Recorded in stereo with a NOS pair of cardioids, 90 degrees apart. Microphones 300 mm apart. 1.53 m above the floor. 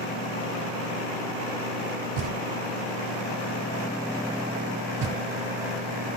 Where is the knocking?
65° right, 1.7 m.